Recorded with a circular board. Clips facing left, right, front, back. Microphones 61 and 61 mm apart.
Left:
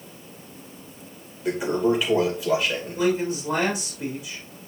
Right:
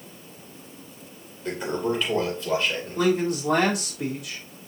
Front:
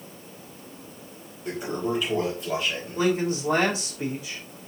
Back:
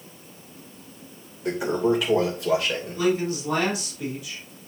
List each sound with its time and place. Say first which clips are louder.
1.4 s a toilet flushing: left 5 dB, back 6 dB; 175° left, 3 m
3.0 s a man speaking: right 1 dB, even; 60° right, 3.5 m